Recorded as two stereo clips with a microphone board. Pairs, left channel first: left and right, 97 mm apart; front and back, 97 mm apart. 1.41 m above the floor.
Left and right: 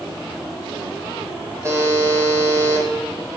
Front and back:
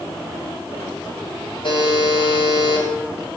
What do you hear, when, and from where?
1.6 s a buzzer: 30° right, 4 m